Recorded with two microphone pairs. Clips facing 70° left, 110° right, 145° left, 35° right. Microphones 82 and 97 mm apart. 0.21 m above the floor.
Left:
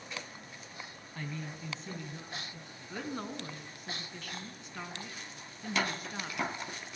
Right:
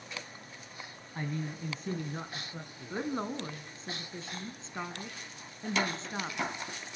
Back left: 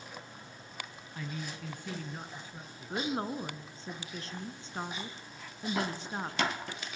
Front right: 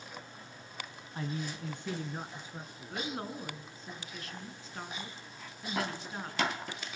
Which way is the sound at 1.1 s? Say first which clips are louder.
Right 5 dB, front right 3 dB; 75° right.